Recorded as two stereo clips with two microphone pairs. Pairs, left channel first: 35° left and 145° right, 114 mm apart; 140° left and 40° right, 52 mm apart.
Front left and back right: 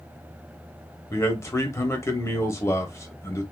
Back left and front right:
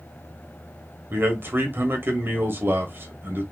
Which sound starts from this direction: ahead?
A man speaking, at 1.1 s.